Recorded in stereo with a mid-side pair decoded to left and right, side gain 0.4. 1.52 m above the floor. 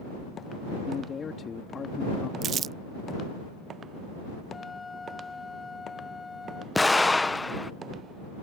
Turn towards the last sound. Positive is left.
turn(degrees=15)